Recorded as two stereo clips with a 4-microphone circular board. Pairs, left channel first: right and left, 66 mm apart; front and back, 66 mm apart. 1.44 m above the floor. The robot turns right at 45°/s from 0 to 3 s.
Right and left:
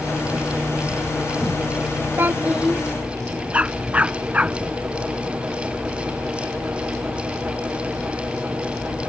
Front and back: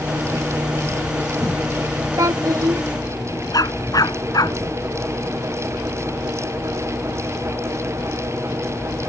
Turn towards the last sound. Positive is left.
turn(degrees=20)